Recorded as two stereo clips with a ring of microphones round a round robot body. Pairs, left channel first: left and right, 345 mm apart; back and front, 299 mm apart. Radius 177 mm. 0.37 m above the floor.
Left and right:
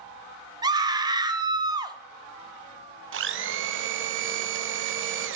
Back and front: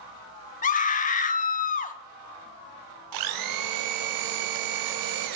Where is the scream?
155° right, 0.8 m.